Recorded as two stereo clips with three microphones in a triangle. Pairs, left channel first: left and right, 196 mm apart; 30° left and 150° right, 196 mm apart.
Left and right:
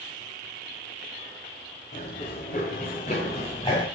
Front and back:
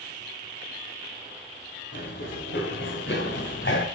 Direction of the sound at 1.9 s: 45° left.